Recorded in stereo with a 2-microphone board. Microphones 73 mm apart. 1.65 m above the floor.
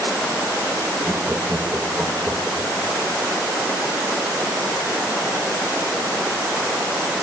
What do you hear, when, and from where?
1.0 s laughter: 20° right (ahead or behind), 2.0 m